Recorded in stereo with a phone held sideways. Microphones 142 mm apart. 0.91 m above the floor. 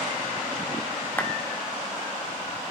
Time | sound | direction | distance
1.2 | a clap | 15° left (ahead or behind) | 2.5 m